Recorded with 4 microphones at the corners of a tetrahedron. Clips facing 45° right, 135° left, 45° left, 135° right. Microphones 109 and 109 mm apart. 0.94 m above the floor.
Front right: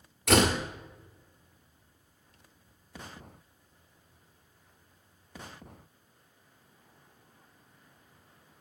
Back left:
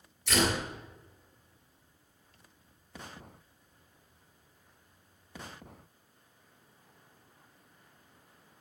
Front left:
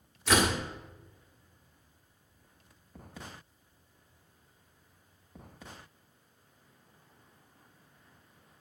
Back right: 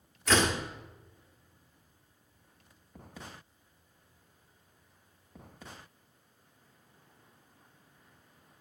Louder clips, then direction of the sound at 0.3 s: Front right 5 dB, even; 35° right.